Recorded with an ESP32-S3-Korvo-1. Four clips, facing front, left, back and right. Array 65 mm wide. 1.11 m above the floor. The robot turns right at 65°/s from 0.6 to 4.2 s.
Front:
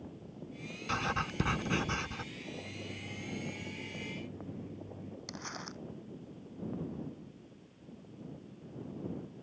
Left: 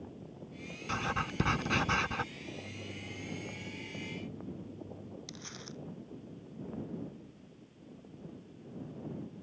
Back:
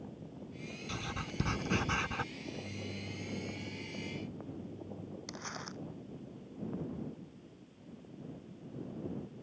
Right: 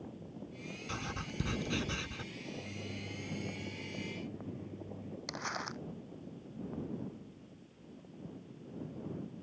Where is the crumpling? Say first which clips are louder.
Right 8 dB, front 1 dB; 95° right.